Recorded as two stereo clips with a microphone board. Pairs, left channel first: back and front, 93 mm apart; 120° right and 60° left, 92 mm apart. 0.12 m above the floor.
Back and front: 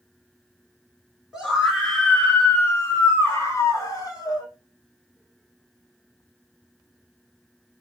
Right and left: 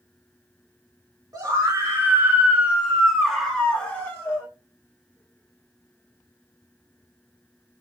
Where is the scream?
85° left, 1.5 m; by 4.5 s 170° right, 1.5 m.